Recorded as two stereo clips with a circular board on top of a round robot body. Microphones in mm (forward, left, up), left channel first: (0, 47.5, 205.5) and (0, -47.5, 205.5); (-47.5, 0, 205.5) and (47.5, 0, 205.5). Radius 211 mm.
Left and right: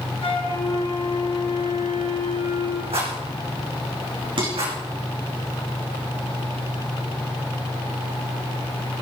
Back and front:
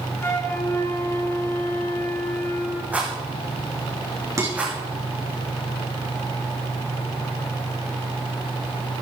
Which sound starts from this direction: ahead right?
Dishes clattering, at 4.4 s.